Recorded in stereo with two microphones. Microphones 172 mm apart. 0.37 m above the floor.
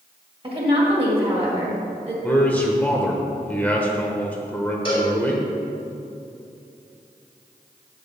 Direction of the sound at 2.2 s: 10° left (ahead or behind).